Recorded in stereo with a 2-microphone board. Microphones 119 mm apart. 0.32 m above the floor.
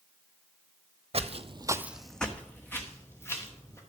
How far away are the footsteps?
About 0.6 m.